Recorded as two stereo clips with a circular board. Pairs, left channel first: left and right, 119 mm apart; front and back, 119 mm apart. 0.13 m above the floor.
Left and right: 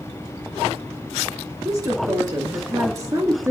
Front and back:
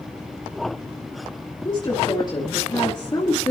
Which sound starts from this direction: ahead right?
A woman speaking, at 1.6 s.